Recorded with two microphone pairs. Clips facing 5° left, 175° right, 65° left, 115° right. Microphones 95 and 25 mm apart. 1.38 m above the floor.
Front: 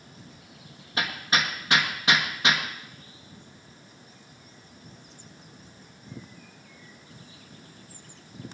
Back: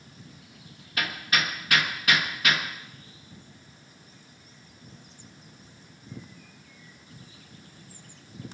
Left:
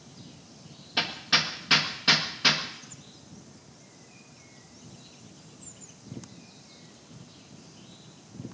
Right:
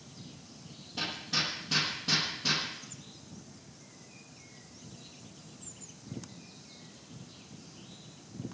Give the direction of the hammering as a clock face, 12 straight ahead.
10 o'clock.